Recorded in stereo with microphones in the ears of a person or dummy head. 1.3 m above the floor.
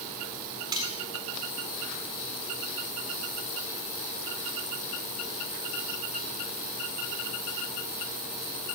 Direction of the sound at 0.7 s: 20° right (ahead or behind).